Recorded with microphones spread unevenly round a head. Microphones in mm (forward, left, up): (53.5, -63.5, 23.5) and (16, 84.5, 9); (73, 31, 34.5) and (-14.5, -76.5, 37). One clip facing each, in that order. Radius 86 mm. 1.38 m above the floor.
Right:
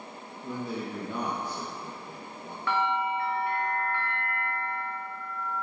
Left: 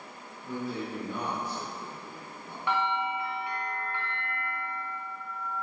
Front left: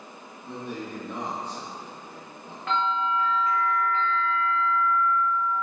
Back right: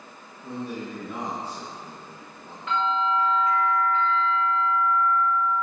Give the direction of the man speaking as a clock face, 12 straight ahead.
2 o'clock.